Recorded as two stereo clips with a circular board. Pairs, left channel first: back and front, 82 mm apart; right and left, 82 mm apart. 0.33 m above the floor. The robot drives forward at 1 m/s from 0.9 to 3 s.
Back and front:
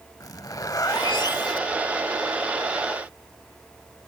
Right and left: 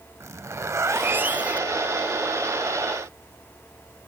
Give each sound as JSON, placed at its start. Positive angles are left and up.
{"t": 0.2, "sound": "a zipper", "azimuth_deg": 140, "distance_m": 0.5}